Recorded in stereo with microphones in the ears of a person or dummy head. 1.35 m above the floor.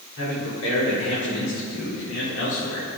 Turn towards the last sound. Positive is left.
turn(degrees=80)